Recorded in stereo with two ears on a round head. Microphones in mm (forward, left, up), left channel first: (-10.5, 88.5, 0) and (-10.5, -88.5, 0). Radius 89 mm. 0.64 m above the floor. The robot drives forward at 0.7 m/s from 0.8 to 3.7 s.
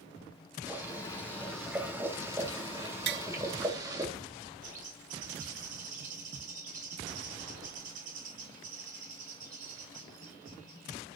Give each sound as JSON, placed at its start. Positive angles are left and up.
{"t": 0.7, "sound": "boiling", "side_deg": -10, "distance_m": 4.0}
{"t": 3.1, "sound": "tapping", "side_deg": -55, "distance_m": 0.6}
{"t": 4.6, "sound": "a bird", "side_deg": -45, "distance_m": 4.0}